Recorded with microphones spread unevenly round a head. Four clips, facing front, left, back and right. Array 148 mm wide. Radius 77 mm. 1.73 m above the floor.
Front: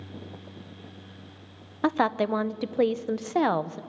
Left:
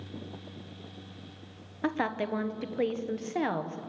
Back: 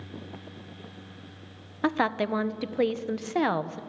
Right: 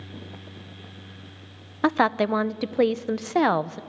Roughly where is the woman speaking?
Right.